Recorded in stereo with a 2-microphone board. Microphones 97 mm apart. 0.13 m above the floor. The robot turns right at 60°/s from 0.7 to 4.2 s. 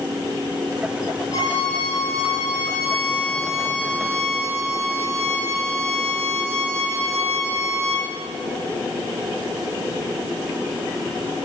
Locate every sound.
1.3 s a violin: 45° left, 4 m; by 8.1 s 140° right, 4 m